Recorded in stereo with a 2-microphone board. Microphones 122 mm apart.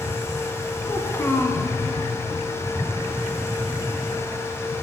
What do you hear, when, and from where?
0.8 s a child speaking: 25° left (ahead or behind), 0.9 m